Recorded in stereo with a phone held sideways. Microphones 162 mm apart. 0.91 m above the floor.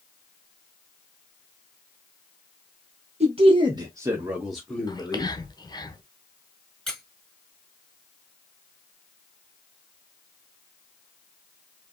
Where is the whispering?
25° left (ahead or behind), 0.9 m.